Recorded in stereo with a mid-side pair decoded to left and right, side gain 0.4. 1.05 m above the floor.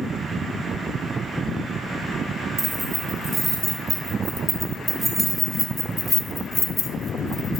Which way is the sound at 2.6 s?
35° right.